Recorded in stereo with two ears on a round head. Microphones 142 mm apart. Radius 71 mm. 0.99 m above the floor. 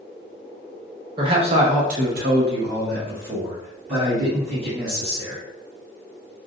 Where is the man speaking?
30° right (ahead or behind), 0.9 m; by 5.4 s 35° right (ahead or behind), 1.9 m.